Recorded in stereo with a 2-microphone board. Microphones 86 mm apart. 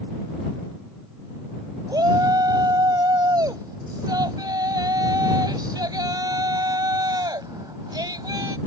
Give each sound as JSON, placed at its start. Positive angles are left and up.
{"t": 1.9, "sound": "a shout", "side_deg": -55}